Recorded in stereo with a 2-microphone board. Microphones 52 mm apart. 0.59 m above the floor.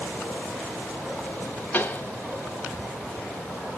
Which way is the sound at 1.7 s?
35° left (ahead or behind).